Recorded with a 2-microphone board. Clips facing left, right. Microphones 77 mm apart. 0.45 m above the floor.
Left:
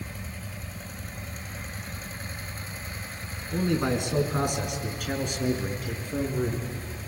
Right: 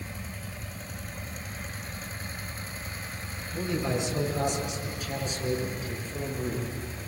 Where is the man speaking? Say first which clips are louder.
Left 4 dB; 60° left (ahead or behind), 5.5 m.